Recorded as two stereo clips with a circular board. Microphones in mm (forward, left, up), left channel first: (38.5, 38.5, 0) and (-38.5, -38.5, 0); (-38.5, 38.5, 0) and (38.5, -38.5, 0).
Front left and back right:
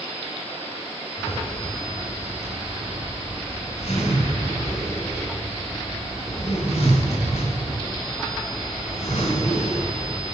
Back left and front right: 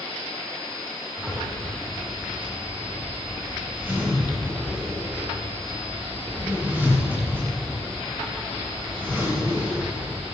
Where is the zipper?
30° left, 7.5 m.